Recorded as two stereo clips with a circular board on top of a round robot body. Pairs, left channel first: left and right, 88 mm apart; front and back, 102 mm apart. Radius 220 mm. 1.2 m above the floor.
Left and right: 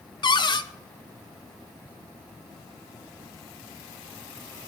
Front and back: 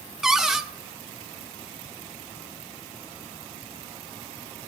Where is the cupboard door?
95° left, 0.5 m.